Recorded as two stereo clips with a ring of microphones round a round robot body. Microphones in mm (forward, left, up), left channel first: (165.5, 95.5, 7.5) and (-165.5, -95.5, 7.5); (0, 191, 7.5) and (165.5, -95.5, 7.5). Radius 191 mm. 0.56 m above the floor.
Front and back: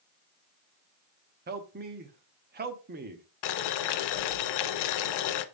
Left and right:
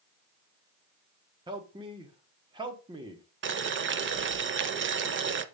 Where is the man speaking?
120° right, 0.8 m.